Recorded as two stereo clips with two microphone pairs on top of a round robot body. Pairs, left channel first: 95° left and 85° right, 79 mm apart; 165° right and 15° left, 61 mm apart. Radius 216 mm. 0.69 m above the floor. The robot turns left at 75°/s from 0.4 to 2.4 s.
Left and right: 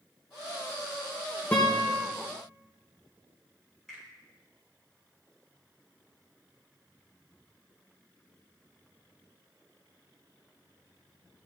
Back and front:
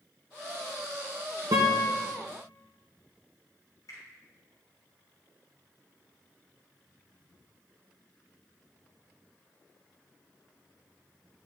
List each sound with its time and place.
1.5 s a guitar: 25° left, 0.6 m; by 1.9 s 5° right, 0.6 m
3.9 s a finger snap: 175° left, 4 m